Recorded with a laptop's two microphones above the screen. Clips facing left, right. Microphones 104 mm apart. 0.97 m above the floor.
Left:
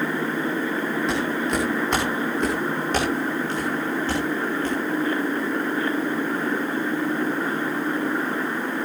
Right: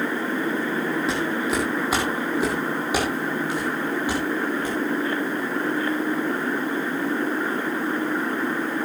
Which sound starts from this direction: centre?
Footsteps, at 1.1 s.